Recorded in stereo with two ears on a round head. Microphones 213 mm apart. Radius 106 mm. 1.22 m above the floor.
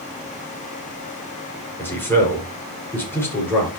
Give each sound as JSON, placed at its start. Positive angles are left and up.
{"t": 1.8, "sound": "a man speaking", "side_deg": 10, "distance_m": 5.0}